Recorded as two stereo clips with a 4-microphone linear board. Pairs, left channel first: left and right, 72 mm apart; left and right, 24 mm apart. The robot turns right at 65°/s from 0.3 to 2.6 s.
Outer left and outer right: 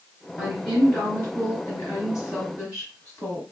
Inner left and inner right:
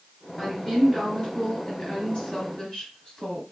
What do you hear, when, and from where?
0.4 s a woman speaking: 10° right, 1.9 m; by 3.4 s 135° left, 1.9 m